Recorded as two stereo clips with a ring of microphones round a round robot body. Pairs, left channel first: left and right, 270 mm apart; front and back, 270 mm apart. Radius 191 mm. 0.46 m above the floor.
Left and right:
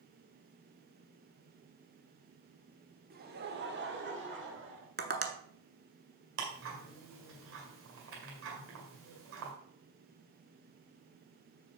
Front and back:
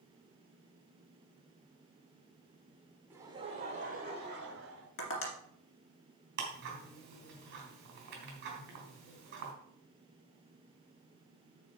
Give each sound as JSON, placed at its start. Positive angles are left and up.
{"t": 3.1, "sound": "laughter", "azimuth_deg": -105, "distance_m": 1.0}
{"t": 5.0, "sound": "tapping", "azimuth_deg": -35, "distance_m": 1.7}
{"t": 6.4, "sound": "ticking", "azimuth_deg": -130, "distance_m": 2.0}